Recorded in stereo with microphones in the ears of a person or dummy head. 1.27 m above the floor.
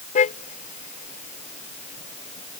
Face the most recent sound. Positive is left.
turn(degrees=35)  # may be behind; listen again after turning